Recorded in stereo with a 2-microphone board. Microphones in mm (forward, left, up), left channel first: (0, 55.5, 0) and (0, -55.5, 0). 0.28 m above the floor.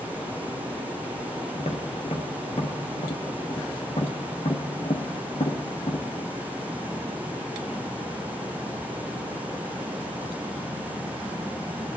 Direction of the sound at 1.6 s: 65° left (ahead or behind).